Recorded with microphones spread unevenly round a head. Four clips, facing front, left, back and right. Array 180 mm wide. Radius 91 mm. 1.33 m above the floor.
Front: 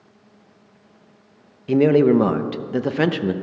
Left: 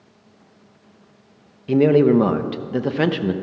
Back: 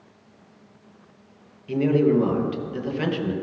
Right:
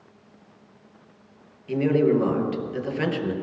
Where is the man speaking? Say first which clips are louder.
Left 6 dB, front 5 dB; 40° left, 0.9 m.